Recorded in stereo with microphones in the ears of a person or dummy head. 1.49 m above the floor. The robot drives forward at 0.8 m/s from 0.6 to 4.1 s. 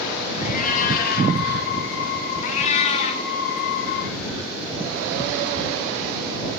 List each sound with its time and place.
0.4 s a cat meowing: 55° left (ahead or behind), 3 m; by 1.4 s 60° left (ahead or behind), 3 m
2.4 s a cat meowing: 40° left (ahead or behind), 1.5 m; by 3.2 s 30° left (ahead or behind), 2.0 m